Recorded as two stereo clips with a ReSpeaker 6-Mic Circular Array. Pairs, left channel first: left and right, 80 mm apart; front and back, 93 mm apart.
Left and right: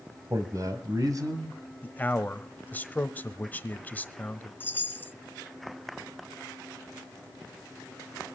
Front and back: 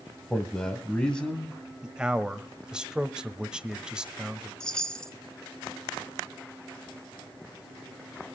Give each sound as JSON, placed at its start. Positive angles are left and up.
{"t": 0.3, "sound": "a man speaking", "azimuth_deg": -80, "distance_m": 1.7}
{"t": 1.8, "sound": "a man speaking", "azimuth_deg": 110, "distance_m": 1.0}
{"t": 4.6, "sound": "a chime", "azimuth_deg": 70, "distance_m": 1.0}